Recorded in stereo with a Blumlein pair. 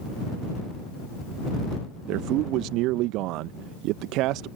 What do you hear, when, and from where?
2.1 s a man speaking: 40° right